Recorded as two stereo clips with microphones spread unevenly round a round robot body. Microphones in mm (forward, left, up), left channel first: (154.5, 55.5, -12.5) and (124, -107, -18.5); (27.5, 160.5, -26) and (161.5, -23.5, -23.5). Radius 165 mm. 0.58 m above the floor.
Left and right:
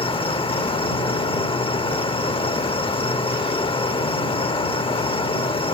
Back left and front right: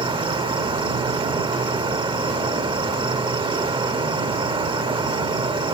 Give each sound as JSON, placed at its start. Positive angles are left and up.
{"t": 0.0, "sound": "an insect", "azimuth_deg": 15}